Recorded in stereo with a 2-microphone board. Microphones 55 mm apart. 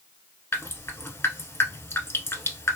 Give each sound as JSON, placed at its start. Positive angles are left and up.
{"t": 0.5, "sound": "dripping", "side_deg": 50, "distance_m": 0.9}